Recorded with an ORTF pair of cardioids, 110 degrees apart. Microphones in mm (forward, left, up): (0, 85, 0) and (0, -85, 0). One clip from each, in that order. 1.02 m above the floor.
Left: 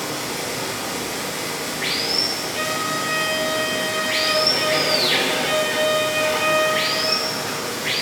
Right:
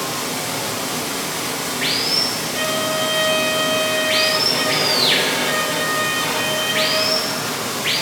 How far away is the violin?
About 1.4 m.